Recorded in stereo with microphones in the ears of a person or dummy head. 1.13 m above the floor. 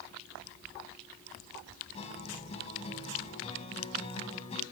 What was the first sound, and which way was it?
A guitar, 35° left (ahead or behind).